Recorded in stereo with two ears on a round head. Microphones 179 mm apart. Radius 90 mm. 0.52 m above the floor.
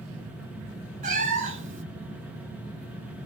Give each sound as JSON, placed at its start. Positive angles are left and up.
{"t": 1.0, "sound": "a cat meowing", "side_deg": -50, "distance_m": 0.8}